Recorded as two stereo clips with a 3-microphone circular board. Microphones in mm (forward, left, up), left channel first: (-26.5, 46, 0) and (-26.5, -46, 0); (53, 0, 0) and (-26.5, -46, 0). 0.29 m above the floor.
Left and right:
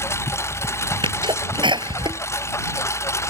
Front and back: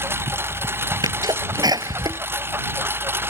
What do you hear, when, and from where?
0.0 s a lawn mower: 145° left
1.0 s a sneeze: 110° right